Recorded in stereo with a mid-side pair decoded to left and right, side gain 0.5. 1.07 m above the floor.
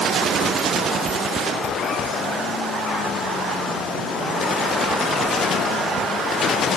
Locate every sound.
1.1 s chewing: 15° right